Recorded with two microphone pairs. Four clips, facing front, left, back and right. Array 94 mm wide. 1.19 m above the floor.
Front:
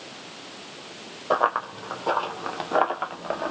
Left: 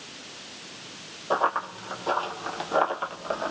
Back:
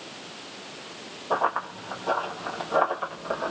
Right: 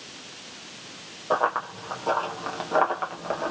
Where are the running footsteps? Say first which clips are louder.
Right 1 dB, front 3 dB; 15° right, 2.0 m; by 3.5 s 30° right, 1.3 m.